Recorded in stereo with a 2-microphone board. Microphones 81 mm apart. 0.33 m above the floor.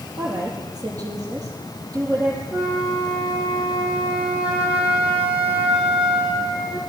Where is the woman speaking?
45° right (ahead or behind), 7 m.